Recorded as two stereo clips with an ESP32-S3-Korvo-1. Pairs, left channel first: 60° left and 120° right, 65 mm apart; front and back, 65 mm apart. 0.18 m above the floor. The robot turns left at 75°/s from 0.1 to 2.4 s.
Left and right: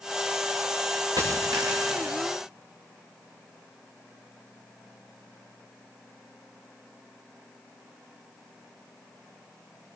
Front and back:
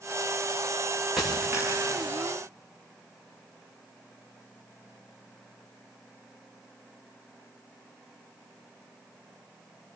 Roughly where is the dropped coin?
Right.